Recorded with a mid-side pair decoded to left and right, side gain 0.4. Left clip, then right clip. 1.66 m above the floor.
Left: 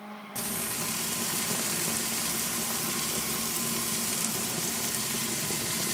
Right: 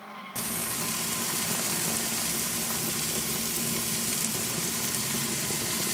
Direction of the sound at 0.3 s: 10° right.